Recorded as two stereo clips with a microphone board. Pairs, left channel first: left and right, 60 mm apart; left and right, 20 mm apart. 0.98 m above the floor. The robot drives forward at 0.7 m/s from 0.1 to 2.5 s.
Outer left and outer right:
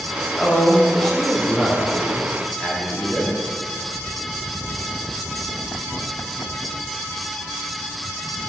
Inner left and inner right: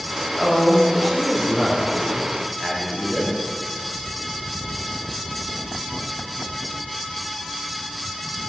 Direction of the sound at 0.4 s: 15° left (ahead or behind).